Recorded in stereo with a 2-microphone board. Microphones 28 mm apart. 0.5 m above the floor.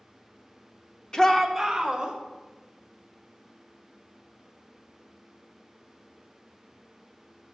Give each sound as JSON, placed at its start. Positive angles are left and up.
{"t": 1.1, "sound": "a shout", "side_deg": 25, "distance_m": 0.7}